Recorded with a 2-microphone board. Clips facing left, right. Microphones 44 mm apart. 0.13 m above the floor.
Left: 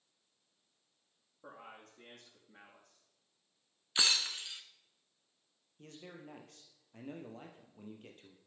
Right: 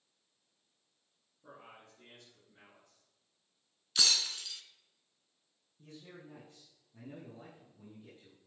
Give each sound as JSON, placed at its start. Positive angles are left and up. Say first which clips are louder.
{"t": 1.4, "sound": "a man speaking", "louder": "left 2 dB", "side_deg": 75, "distance_m": 5.0}
{"t": 4.0, "sound": "breaking glass", "louder": "even", "side_deg": 25, "distance_m": 0.8}
{"t": 5.8, "sound": "a man speaking", "louder": "left 1 dB", "side_deg": 70, "distance_m": 3.0}